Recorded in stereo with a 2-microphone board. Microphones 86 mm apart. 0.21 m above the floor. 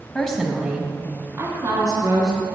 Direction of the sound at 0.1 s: 15° left (ahead or behind).